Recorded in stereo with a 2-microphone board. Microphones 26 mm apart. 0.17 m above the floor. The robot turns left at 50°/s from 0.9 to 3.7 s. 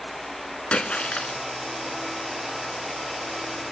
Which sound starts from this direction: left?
A splash, at 0.7 s.